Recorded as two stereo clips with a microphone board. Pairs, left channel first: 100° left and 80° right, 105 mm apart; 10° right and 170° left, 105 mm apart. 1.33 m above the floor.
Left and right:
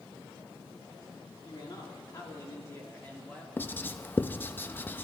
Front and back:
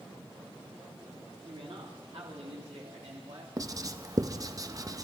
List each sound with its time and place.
1.4 s a man speaking: 140° left, 3.5 m; by 3.5 s 175° left, 3.5 m
3.6 s writing: 160° left, 0.6 m